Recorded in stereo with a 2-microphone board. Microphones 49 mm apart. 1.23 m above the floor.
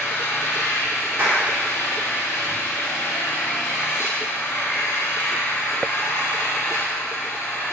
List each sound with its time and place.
0.0 s an engine running: 70° left (ahead or behind), 3 m
1.2 s a clap: 55° right (ahead or behind), 3.5 m